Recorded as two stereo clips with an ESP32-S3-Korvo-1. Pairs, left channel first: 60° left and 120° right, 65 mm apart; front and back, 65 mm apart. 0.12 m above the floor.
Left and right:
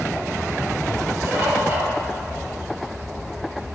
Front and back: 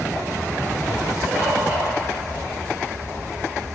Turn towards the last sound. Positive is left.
turn(degrees=-125)